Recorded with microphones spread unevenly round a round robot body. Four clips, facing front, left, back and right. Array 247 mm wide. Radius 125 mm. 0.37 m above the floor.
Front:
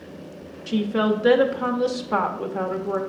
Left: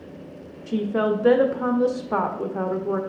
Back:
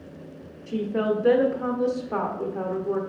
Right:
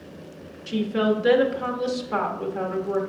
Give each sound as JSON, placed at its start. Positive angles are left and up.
{"t": 0.7, "sound": "a woman speaking", "azimuth_deg": 50, "distance_m": 0.8}